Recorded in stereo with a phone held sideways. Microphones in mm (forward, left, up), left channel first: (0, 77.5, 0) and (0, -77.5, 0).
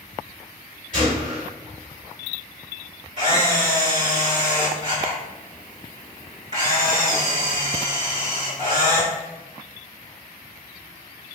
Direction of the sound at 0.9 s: 55° right (ahead or behind).